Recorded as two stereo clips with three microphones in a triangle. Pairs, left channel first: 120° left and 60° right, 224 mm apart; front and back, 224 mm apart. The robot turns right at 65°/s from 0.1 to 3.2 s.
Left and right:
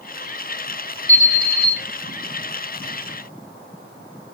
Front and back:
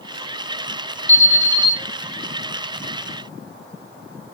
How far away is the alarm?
About 2 m.